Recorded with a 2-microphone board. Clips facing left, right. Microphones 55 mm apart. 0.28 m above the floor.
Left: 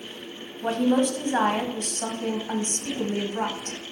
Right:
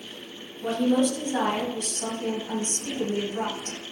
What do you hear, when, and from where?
0.6 s a woman speaking: 50° left (ahead or behind), 1.4 m